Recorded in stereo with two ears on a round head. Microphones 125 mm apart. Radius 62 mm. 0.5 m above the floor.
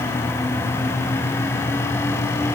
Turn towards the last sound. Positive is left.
No sound to turn to.